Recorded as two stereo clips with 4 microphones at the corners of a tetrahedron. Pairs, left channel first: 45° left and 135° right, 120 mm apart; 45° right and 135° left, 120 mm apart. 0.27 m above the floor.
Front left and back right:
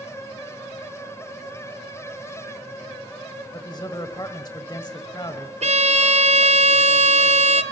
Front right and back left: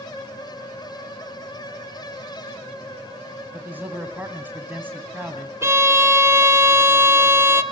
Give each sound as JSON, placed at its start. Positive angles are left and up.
{"t": 3.5, "sound": "a man speaking", "azimuth_deg": 70, "distance_m": 1.6}
{"t": 5.6, "sound": "a violin", "azimuth_deg": -160, "distance_m": 0.9}